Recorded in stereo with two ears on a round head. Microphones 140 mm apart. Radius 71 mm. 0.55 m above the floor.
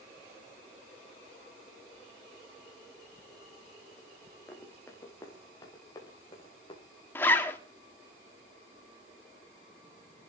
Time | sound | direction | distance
4.5 | running footsteps | 15° left (ahead or behind) | 4.5 m
7.2 | a zipper | 15° left (ahead or behind) | 1.3 m